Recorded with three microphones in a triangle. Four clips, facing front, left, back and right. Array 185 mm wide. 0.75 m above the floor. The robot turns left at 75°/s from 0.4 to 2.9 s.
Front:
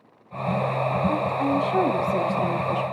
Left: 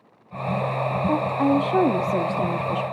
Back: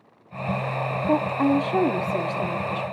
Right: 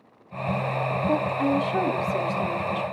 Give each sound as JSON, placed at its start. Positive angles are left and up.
{"t": 1.1, "sound": "a woman speaking", "azimuth_deg": 165, "distance_m": 1.4}